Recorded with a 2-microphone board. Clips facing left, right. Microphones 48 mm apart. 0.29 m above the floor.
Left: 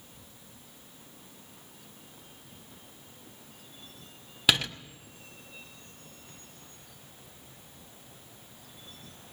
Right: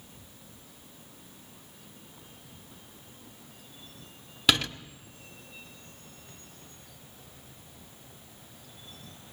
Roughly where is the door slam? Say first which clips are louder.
Right 1 dB; centre.